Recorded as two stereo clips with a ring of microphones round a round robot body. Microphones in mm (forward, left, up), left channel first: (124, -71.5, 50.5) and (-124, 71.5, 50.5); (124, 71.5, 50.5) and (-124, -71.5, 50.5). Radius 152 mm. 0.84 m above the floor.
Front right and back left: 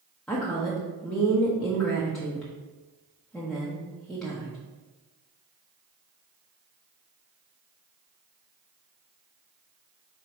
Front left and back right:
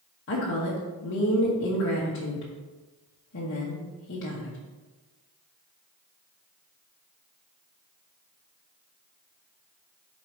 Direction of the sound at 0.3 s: 55° left.